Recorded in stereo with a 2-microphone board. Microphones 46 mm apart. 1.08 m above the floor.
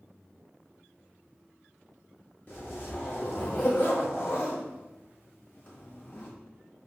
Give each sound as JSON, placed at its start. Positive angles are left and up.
{"t": 2.5, "sound": "a zipper", "side_deg": 40, "distance_m": 1.9}